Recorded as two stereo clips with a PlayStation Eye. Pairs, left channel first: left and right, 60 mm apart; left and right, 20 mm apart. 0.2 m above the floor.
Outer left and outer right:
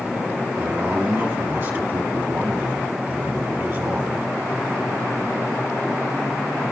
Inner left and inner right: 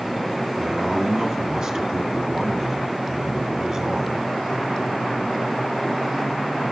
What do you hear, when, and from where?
0.6 s a man speaking: 45° right (ahead or behind), 2.0 m